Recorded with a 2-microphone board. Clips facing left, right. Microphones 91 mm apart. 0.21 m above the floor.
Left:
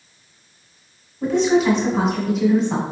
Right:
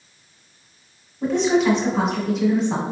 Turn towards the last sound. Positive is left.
turn(degrees=0)  # may be behind; listen again after turning